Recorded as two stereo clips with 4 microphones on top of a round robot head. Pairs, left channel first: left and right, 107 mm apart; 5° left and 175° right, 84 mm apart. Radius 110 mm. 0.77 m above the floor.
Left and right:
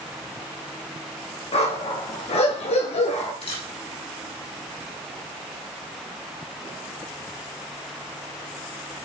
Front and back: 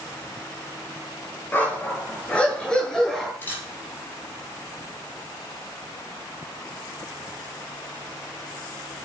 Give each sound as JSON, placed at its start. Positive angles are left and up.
{"t": 1.5, "sound": "a dog barking", "azimuth_deg": 70, "distance_m": 6.5}
{"t": 3.4, "sound": "a camera shutter", "azimuth_deg": 70, "distance_m": 9.5}